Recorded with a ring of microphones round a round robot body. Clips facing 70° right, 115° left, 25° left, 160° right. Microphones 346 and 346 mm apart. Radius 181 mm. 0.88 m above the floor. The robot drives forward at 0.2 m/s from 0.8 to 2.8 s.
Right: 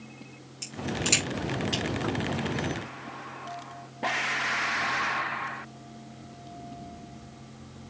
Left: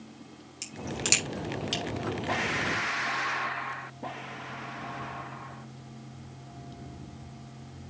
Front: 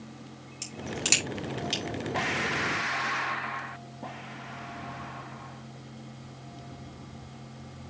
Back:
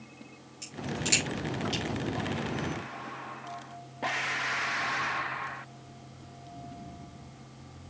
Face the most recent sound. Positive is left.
turn(degrees=90)